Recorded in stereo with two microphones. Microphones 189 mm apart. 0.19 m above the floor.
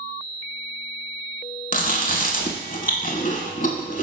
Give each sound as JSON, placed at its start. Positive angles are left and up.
{"t": 1.7, "sound": "chewing", "side_deg": 50, "distance_m": 0.6}